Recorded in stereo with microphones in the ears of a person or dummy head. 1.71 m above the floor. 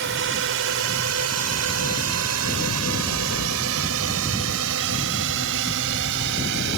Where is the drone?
55° right (ahead or behind); by 6.8 s 70° right (ahead or behind).